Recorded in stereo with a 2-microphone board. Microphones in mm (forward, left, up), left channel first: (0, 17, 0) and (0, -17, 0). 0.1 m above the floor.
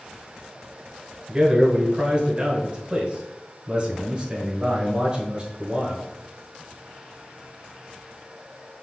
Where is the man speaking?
25° right (ahead or behind), 1.2 m.